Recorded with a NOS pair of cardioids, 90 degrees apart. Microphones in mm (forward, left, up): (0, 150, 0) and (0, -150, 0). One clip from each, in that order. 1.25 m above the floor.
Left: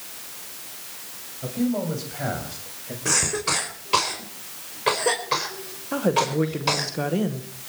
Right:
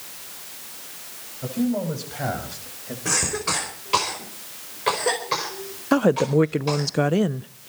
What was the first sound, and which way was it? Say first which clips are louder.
A man speaking: right 1 dB; 20° right.